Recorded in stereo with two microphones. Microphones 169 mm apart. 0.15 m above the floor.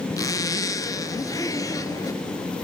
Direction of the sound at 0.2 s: 20° left (ahead or behind).